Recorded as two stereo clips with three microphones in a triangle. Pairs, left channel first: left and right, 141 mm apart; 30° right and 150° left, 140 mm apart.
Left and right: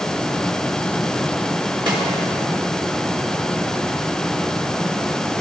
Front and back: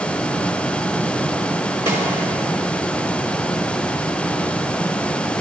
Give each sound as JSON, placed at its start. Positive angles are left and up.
{"t": 1.9, "sound": "a snare drum", "azimuth_deg": -140, "distance_m": 4.0}